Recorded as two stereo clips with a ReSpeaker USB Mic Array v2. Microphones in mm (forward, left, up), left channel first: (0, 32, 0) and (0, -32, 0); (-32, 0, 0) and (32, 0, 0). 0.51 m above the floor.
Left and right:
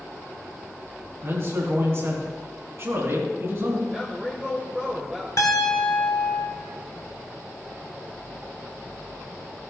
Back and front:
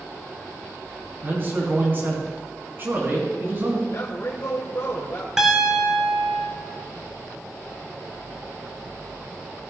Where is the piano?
85° left, 2.5 m.